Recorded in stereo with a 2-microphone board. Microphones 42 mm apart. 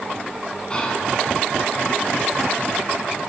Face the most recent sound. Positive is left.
turn(degrees=25)  # may be behind; listen again after turning